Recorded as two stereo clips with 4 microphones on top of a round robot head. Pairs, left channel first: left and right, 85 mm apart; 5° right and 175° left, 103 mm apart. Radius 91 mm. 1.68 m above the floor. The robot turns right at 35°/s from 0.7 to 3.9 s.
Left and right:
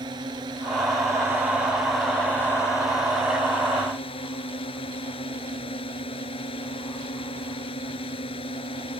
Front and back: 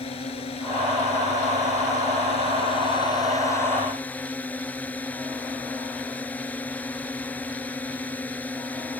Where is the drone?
40° right; by 9.0 s 70° left.